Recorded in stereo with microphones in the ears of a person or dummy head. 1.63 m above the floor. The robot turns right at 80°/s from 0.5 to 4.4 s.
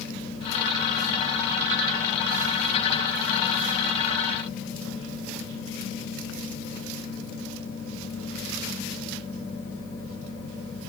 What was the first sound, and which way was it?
Only background noise.